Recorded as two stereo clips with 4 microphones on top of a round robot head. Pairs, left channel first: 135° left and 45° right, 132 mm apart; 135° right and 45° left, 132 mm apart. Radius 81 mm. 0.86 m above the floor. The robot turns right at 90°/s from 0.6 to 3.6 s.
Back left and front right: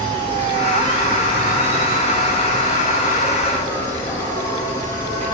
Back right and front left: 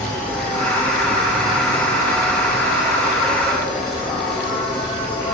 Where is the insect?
100° right, 4.5 m; by 5.3 s 170° left, 4.5 m.